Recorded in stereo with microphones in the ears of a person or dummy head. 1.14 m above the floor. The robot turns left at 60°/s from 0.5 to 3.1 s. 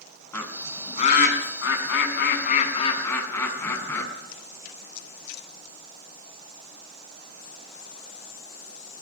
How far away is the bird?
About 4.5 m.